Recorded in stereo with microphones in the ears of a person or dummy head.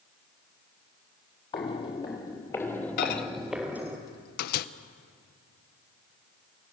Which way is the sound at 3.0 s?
55° left (ahead or behind).